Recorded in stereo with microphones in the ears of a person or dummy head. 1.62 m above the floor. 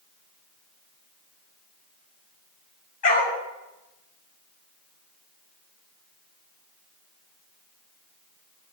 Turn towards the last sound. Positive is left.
turn(degrees=45)  # may be behind; listen again after turning